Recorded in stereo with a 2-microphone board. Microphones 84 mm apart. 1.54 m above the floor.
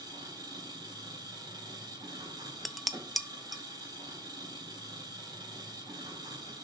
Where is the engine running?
55° right (ahead or behind), 4.5 m.